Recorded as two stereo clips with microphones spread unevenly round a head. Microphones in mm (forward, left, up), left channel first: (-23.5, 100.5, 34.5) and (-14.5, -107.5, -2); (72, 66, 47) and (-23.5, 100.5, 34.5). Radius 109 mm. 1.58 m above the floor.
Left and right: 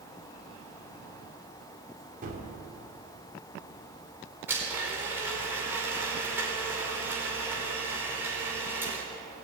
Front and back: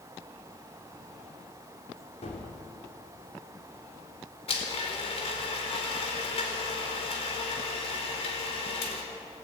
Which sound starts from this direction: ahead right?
A gunshot, at 2.2 s.